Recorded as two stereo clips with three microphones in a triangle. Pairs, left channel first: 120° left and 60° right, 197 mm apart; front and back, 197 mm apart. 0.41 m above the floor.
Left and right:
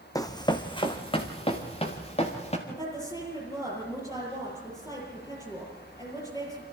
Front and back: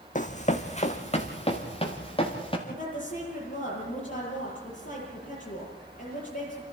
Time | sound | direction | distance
0.1 | running footsteps | 45° left | 1.4 m
2.7 | a woman speaking | 50° left | 8 m